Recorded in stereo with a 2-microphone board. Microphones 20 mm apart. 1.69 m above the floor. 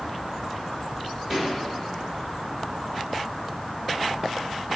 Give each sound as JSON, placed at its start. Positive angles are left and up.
{"t": 1.3, "sound": "a pop", "side_deg": 5, "distance_m": 2.5}